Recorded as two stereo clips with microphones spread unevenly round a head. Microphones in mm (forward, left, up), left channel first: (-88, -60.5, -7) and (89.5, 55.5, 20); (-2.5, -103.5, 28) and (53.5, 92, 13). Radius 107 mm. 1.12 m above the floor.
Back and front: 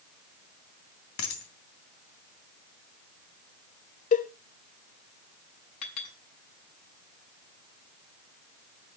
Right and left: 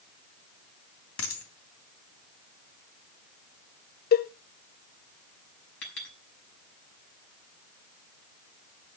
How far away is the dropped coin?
About 2.5 m.